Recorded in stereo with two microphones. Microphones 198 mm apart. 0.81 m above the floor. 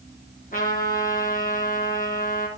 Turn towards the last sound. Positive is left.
turn(degrees=40)  # may be behind; listen again after turning